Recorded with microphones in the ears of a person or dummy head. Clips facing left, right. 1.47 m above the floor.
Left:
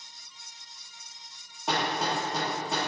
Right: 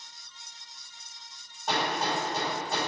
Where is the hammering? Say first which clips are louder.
Even; 60° left (ahead or behind), 2.0 m.